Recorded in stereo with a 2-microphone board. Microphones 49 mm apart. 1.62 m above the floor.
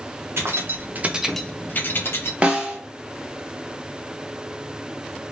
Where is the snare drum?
25° right (ahead or behind), 1.0 m.